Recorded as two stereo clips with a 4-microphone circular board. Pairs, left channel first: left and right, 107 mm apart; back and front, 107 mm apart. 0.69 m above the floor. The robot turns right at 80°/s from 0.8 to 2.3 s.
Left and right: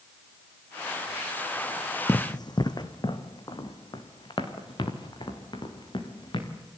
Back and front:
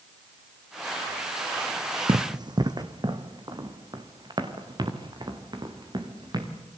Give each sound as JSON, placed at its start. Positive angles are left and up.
{"t": 2.1, "sound": "running footsteps", "azimuth_deg": 25, "distance_m": 1.5}